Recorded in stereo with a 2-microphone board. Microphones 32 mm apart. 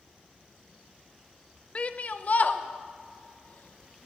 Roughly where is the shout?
Left.